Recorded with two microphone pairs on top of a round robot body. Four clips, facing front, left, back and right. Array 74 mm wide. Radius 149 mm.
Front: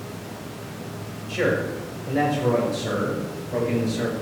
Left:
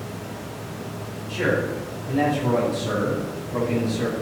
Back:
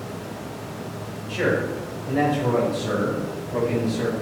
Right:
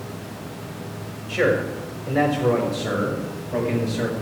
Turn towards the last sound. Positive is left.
turn(degrees=-50)